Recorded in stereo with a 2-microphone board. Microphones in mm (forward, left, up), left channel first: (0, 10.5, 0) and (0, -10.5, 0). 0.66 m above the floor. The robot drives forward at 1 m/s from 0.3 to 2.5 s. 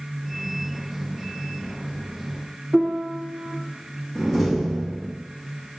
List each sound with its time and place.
2.7 s a piano: 60° right (ahead or behind), 1.9 m
4.2 s a door slam: 10° right (ahead or behind), 3.5 m